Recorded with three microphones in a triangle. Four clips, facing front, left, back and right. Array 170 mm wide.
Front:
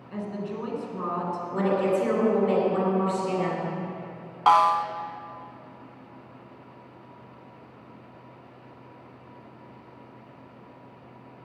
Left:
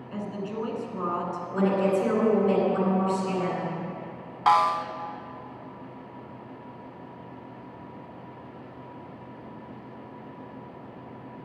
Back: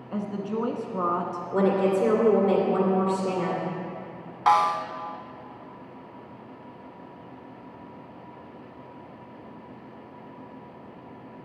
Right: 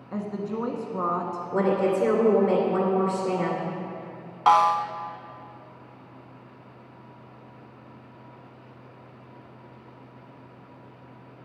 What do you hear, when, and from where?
0.1 s a woman speaking: 135° right, 1.3 m
1.5 s a woman speaking: 120° right, 2.0 m
4.5 s a snare drum: 45° right, 0.5 m